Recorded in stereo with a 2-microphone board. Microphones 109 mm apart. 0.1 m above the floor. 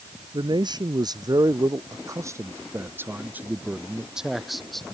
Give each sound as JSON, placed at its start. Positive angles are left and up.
{"t": 0.3, "sound": "a man speaking", "side_deg": -45}